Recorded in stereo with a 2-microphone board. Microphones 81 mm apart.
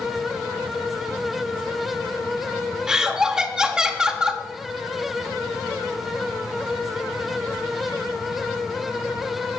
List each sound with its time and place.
2.9 s laughter: 10° right (ahead or behind), 1.5 m